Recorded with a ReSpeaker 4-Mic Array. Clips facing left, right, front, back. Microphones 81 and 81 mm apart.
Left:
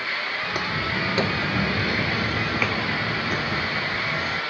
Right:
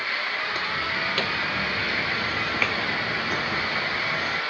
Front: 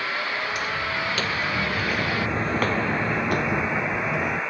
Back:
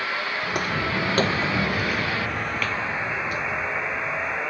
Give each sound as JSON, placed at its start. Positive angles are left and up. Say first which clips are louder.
{"t": 0.4, "sound": "footsteps", "louder": "left 1 dB, back 2 dB", "azimuth_deg": 160}